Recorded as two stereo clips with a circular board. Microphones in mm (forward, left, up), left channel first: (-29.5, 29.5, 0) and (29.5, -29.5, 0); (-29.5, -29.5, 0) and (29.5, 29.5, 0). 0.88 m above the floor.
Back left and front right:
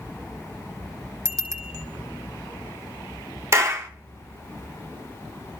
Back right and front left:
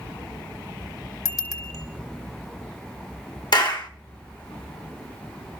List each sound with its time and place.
1.2 s a bicycle bell: 90° right, 2 m
3.5 s a clap: 100° right, 1.4 m